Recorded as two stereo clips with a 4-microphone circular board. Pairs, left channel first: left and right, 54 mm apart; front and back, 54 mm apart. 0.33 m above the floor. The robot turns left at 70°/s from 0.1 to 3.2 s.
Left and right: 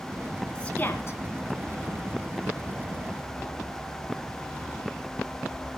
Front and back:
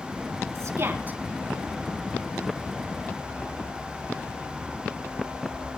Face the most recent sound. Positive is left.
turn(degrees=-25)